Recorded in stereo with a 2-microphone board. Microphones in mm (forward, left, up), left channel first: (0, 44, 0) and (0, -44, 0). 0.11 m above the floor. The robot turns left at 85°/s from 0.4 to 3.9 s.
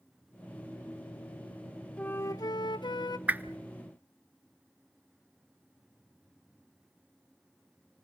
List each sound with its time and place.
2.0 s a flute: 165° left, 0.5 m; by 3.2 s 60° left, 0.5 m
3.3 s a whoosh: 20° right (ahead or behind), 0.6 m; by 3.6 s 25° right (ahead or behind), 0.6 m